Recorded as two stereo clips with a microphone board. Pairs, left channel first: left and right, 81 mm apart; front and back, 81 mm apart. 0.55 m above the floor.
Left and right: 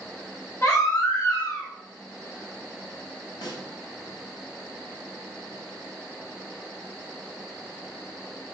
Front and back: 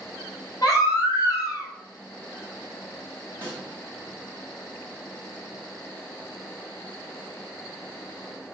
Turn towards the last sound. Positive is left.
turn(degrees=65)